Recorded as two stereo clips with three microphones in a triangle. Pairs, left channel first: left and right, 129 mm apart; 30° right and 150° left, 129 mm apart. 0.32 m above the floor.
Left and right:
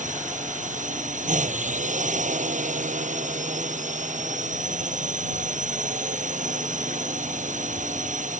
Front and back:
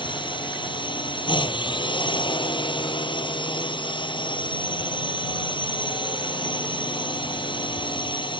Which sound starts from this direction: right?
A drone, at 0.0 s.